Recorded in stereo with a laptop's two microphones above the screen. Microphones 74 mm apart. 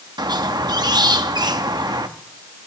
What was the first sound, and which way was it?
A squeak, 70° right (ahead or behind).